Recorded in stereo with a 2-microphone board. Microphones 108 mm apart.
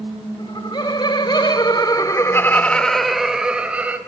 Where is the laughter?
45° left (ahead or behind), 2.5 m; by 4.0 s 15° right (ahead or behind), 2.5 m.